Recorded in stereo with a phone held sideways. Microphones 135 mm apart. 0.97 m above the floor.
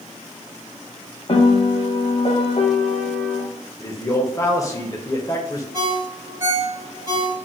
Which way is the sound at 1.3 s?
45° left (ahead or behind).